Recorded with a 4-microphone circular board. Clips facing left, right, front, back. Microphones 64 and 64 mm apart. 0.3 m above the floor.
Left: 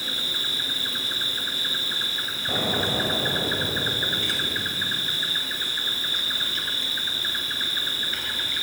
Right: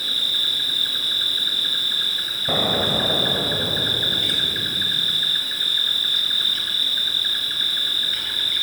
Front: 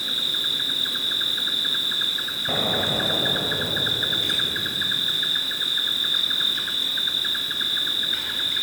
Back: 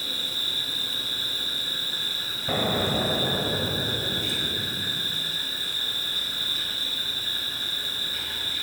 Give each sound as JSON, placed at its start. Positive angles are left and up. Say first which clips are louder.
{"t": 0.0, "sound": "an insect", "louder": "right 3 dB, front 4 dB", "azimuth_deg": 15, "distance_m": 1.1}
{"t": 2.5, "sound": "an explosion", "louder": "right 4 dB, back 1 dB", "azimuth_deg": -85, "distance_m": 0.7}